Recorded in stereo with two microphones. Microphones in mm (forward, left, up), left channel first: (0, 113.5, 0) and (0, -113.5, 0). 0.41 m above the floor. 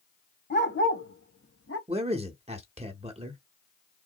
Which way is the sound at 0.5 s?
45° left (ahead or behind).